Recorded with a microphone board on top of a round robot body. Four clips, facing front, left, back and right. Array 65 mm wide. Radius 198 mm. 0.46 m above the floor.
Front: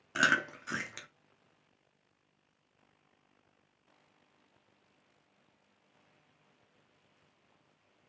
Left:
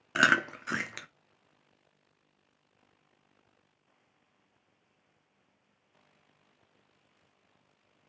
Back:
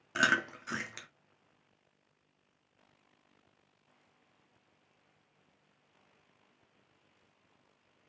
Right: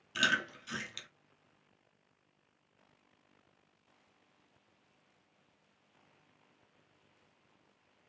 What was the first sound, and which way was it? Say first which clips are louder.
Chewing: left 7 dB, front 1 dB; 85° left.